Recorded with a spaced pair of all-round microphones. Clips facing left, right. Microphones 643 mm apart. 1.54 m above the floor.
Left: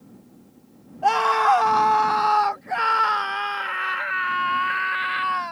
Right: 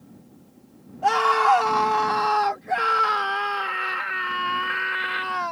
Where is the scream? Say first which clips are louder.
Even; 50° right (ahead or behind); by 5.5 s 70° right (ahead or behind).